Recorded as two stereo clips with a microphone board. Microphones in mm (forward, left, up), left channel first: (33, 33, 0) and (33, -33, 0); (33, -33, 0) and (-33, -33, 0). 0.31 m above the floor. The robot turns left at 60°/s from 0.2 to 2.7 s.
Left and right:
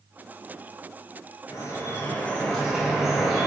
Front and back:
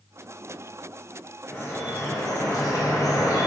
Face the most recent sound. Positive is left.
turn(degrees=-5)